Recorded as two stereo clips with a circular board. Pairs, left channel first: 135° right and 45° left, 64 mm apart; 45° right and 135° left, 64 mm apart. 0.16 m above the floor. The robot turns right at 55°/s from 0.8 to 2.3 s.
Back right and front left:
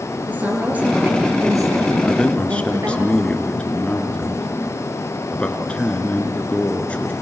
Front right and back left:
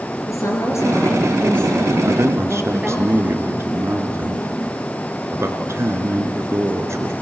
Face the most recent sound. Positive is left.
turn(degrees=160)